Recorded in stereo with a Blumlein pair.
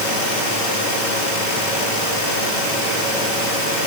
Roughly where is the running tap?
No running tap in this recording.